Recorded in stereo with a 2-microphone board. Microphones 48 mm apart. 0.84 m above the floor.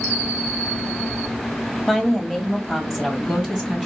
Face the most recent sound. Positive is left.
turn(degrees=-10)  # may be behind; listen again after turning